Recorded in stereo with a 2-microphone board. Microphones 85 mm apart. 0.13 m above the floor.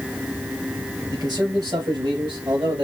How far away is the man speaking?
About 3.5 m.